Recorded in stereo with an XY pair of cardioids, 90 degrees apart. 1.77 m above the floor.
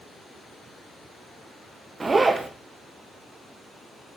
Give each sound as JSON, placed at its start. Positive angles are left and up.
{"t": 2.0, "sound": "a zipper", "azimuth_deg": -30, "distance_m": 1.6}